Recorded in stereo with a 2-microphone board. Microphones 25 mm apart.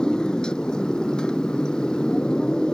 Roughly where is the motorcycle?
Left.